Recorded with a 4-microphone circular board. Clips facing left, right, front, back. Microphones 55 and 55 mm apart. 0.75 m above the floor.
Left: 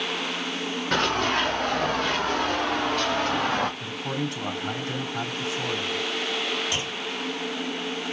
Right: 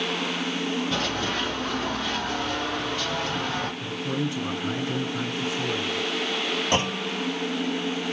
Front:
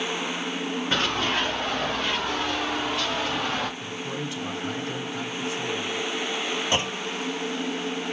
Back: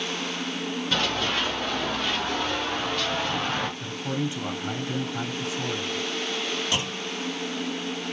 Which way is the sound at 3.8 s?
115° left.